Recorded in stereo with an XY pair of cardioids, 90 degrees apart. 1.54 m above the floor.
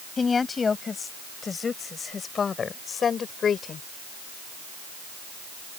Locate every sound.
0.2 s a woman speaking: 40° left; by 3.9 s 60° left